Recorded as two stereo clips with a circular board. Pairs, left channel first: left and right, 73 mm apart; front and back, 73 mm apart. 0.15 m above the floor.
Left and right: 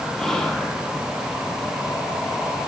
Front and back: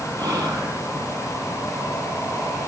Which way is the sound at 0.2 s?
175° left.